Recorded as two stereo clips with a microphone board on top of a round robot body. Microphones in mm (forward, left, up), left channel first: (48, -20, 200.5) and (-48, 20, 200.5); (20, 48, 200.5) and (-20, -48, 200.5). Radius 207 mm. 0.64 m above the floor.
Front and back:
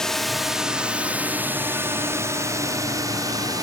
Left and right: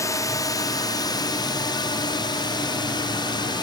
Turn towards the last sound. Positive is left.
turn(degrees=110)